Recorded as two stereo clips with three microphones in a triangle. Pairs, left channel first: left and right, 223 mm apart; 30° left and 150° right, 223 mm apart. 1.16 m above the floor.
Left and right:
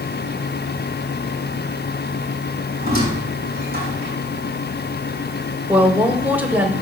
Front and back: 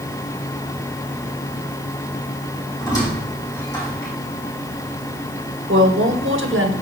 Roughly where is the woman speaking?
Behind.